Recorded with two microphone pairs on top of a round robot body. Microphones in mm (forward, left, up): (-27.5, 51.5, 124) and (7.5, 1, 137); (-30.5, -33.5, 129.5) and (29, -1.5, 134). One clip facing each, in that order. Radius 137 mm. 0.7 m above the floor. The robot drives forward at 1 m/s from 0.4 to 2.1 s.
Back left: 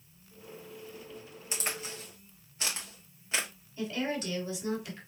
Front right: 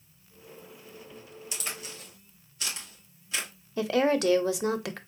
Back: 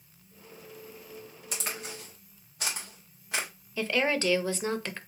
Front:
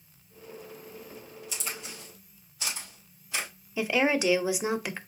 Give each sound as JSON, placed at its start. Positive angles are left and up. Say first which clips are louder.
{"t": 1.5, "sound": "a crack", "louder": "back left 3 dB, back 3 dB", "azimuth_deg": 175, "distance_m": 1.9}
{"t": 3.8, "sound": "a woman speaking", "louder": "front right 9 dB, front 2 dB", "azimuth_deg": -50, "distance_m": 0.7}